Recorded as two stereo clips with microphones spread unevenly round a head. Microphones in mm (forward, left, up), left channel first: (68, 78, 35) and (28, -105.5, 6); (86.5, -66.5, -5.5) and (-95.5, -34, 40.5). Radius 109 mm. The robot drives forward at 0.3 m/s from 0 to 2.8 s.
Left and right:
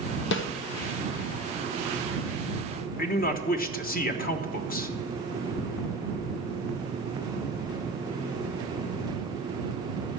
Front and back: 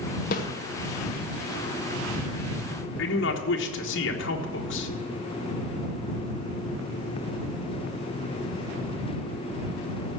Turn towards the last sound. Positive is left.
turn(degrees=30)